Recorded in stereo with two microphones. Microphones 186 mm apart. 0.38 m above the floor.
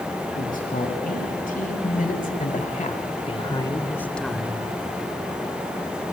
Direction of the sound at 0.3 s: 50° left (ahead or behind).